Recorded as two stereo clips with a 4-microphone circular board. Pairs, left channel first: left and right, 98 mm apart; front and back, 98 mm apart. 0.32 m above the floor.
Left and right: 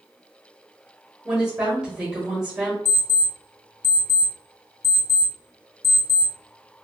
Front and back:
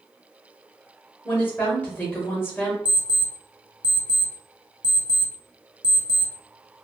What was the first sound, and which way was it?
A woman speaking, 20° right.